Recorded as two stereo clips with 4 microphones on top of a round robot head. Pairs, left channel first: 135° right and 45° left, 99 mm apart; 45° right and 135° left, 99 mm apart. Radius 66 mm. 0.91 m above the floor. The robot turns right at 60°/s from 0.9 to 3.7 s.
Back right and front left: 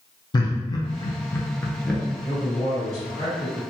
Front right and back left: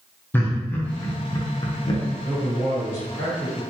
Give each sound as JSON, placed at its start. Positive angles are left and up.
{"t": 0.3, "sound": "laughter", "azimuth_deg": -110, "distance_m": 0.5}
{"t": 2.2, "sound": "a man speaking", "azimuth_deg": -160, "distance_m": 1.6}